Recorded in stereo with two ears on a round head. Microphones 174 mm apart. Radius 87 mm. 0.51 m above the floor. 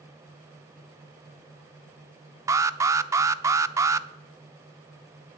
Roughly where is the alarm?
Centre.